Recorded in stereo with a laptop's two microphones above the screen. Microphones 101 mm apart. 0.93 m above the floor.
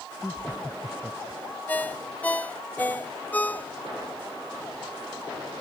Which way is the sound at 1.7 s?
20° left (ahead or behind).